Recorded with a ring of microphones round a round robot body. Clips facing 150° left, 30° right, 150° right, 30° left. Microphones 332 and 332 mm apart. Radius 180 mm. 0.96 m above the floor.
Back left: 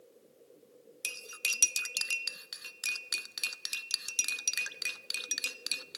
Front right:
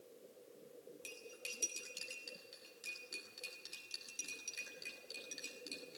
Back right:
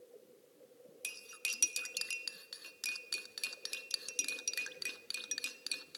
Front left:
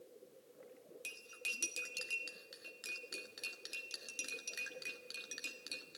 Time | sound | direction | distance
1.0 | cutlery clinking | 135° left | 0.6 m